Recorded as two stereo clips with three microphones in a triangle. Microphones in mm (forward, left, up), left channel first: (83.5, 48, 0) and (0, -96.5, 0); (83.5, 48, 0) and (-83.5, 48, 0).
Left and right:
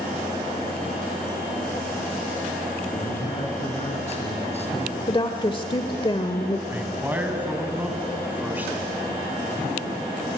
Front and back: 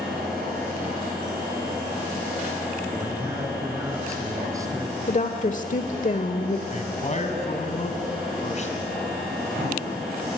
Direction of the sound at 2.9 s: 110° left.